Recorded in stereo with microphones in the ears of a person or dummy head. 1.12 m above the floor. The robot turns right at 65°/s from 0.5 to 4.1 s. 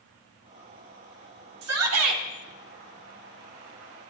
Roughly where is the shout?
Right.